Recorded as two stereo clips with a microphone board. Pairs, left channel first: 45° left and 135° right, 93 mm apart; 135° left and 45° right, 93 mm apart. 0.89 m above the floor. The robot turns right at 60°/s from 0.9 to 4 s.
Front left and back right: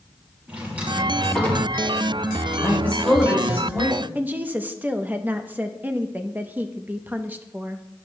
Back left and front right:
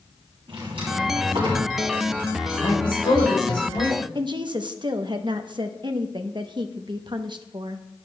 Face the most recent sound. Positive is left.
turn(degrees=-65)